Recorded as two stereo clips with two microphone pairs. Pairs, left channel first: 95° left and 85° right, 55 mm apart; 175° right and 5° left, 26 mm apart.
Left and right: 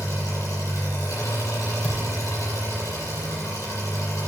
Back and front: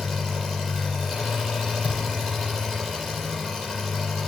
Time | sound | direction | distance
0.0 | an engine running | 90° left | 7.5 m
1.8 | a thud | 160° left | 4 m